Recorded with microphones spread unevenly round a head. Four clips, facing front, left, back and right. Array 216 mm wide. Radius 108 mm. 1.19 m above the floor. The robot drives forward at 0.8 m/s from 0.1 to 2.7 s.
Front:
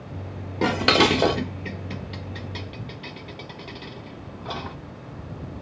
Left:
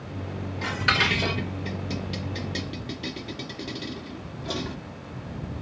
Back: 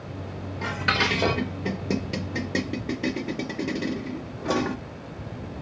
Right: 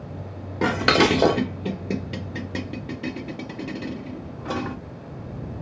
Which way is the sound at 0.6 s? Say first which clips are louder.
Right 8 dB, front 7 dB; 25° right.